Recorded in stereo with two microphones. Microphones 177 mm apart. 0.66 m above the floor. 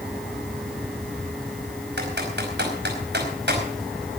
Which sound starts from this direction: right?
Typing on a keyboard, at 2.0 s.